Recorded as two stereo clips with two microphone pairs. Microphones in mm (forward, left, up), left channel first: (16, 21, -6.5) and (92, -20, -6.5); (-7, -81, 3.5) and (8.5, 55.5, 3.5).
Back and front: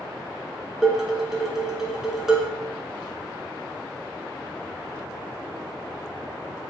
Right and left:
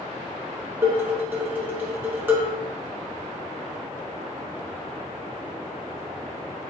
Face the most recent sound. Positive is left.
turn(degrees=40)